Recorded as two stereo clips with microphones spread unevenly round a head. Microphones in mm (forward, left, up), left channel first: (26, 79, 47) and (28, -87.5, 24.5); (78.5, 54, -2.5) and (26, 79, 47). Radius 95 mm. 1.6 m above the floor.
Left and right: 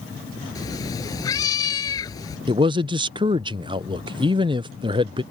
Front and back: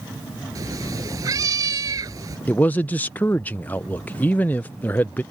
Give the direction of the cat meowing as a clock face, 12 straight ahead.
7 o'clock.